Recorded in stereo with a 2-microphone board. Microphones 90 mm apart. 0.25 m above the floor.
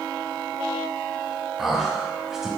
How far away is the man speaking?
About 1.4 m.